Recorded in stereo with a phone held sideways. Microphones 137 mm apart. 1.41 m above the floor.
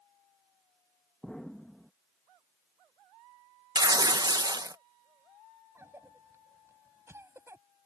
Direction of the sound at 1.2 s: 5° left (ahead or behind).